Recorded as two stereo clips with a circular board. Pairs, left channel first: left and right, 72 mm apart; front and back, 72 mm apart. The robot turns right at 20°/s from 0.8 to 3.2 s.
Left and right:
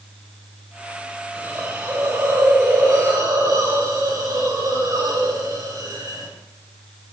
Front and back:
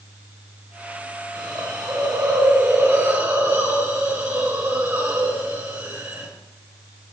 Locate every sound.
1.4 s a hiss: 160° right, 5.5 m; by 6.3 s 125° right, 5.5 m